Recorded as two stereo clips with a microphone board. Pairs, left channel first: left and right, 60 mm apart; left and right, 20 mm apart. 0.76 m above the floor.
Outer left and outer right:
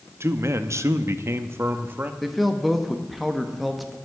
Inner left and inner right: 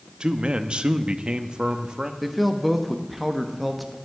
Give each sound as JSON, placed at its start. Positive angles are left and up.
{"t": 0.2, "sound": "a man speaking", "side_deg": -45, "distance_m": 0.8}
{"t": 2.2, "sound": "a man speaking", "side_deg": 0, "distance_m": 1.0}